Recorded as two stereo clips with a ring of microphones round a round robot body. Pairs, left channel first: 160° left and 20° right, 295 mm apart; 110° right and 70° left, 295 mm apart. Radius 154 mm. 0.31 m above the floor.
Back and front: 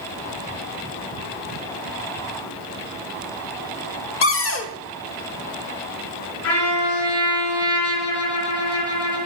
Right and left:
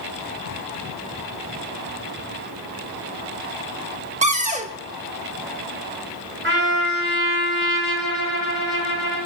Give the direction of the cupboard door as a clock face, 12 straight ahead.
8 o'clock.